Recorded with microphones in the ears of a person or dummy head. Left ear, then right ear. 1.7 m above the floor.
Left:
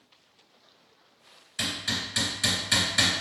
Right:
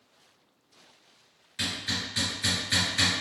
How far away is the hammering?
About 1.7 m.